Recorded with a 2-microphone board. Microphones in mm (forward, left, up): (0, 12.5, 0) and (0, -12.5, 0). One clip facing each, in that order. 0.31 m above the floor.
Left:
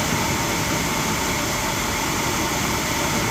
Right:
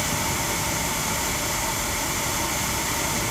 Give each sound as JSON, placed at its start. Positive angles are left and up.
{"t": 0.0, "sound": "a helicopter", "side_deg": 50}